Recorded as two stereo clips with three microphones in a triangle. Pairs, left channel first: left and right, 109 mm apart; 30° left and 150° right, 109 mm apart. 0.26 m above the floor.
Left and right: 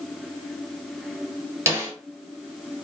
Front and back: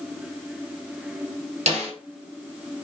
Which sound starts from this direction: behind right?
A snare drum, at 1.7 s.